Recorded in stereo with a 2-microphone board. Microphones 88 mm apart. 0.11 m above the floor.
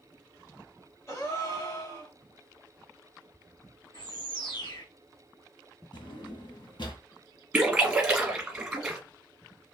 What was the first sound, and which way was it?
A gasp, 30° left (ahead or behind).